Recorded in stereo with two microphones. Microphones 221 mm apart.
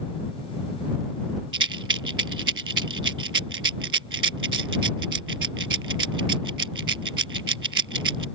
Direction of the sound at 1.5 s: 80° right.